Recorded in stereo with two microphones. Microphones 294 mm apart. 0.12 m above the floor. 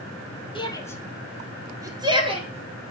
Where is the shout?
15° left (ahead or behind), 1.1 m; by 2.9 s 25° right (ahead or behind), 1.8 m.